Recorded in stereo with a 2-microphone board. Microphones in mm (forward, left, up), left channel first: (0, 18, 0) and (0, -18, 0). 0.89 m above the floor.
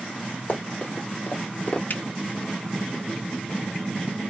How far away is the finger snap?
About 0.8 m.